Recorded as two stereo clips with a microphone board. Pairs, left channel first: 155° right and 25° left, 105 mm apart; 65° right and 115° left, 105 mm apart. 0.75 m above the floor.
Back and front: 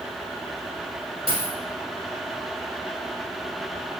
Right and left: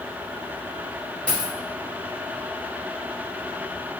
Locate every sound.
1.3 s a dropped coin: 10° left, 1.3 m